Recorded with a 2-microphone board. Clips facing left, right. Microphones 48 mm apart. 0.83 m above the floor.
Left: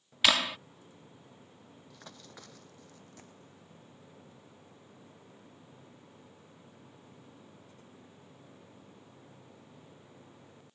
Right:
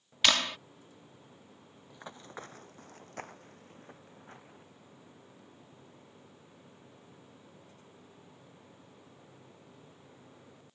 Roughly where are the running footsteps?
Centre.